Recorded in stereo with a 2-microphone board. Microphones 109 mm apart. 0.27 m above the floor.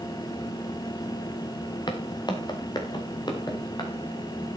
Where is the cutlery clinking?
No cutlery clinking in this recording.